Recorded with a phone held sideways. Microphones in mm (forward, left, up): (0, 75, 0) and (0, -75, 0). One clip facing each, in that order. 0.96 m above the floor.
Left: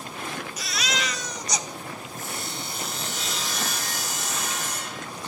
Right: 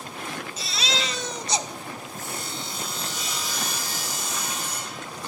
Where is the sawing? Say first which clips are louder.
Left 1 dB; 80° left, 5 m.